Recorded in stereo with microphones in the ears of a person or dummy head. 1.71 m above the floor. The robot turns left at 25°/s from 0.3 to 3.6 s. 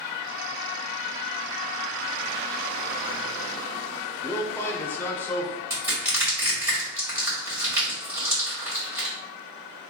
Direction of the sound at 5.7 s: 10° right (ahead or behind).